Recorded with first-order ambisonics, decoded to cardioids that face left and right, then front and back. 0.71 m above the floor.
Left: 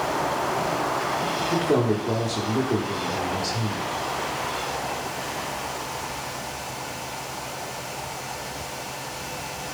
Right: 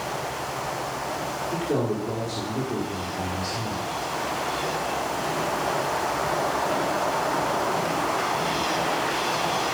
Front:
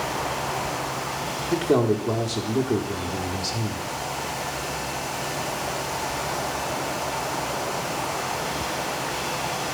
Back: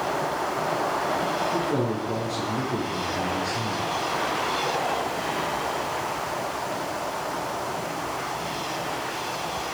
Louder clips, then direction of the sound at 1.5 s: Left 4 dB, front 4 dB; 20° left.